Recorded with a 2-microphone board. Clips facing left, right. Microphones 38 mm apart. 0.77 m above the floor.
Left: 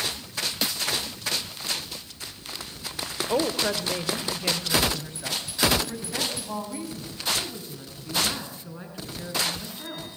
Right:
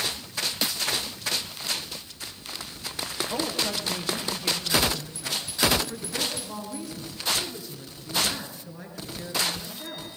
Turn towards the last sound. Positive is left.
turn(degrees=35)  # may be behind; listen again after turning